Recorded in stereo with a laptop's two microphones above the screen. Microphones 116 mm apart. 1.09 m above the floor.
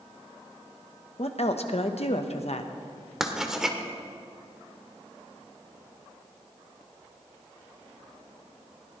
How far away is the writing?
About 1.5 m.